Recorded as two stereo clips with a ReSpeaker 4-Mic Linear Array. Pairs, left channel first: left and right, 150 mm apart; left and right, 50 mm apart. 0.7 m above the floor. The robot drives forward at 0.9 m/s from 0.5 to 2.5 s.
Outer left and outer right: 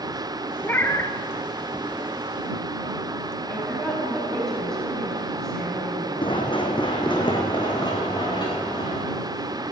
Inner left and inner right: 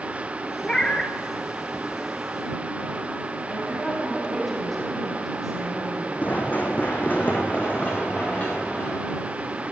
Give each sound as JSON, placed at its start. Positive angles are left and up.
{"t": 0.6, "sound": "a cat meowing", "side_deg": 15, "distance_m": 1.0}
{"t": 3.5, "sound": "a woman speaking", "side_deg": 5, "distance_m": 4.0}
{"t": 6.2, "sound": "running footsteps", "side_deg": 35, "distance_m": 1.7}